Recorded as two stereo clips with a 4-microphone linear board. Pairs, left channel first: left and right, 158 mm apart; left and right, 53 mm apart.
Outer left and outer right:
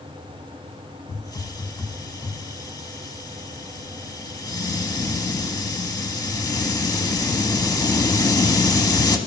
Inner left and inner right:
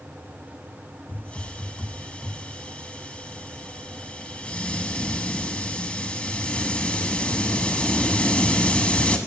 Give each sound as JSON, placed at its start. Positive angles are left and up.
{"t": 1.1, "sound": "a hiss", "side_deg": 25, "distance_m": 0.8}